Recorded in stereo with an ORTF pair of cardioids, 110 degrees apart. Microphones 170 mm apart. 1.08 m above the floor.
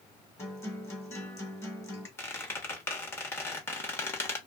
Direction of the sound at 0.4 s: 15° left.